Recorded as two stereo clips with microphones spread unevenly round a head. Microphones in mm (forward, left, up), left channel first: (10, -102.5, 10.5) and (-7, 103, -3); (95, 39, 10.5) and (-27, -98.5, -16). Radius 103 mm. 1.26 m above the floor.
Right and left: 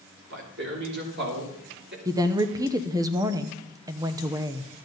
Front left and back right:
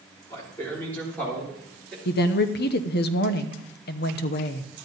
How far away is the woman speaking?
About 0.8 m.